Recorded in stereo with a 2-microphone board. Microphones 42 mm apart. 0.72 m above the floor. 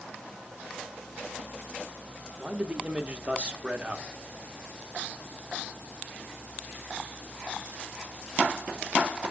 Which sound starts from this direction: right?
A man speaking, at 2.4 s.